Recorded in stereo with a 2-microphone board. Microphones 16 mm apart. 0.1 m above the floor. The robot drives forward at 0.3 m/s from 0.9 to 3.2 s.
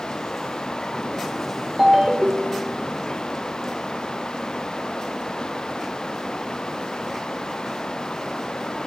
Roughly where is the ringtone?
Right.